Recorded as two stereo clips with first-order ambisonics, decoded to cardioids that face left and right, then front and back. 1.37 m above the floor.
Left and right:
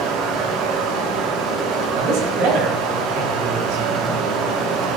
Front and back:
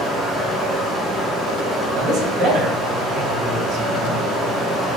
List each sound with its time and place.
0.0 s running water: 90° right, 3 m
1.9 s a man speaking: 120° right, 3.5 m